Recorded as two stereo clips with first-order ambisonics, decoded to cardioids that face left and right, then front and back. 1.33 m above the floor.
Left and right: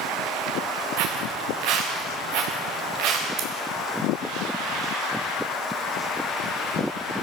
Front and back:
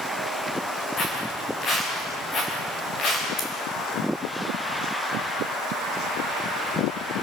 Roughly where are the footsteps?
Right.